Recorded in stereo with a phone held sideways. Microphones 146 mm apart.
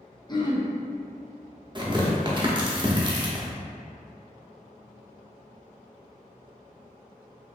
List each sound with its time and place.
0.3 s throat clearing: 30° left (ahead or behind), 0.7 m
1.8 s tearing paper: 30° right (ahead or behind), 0.9 m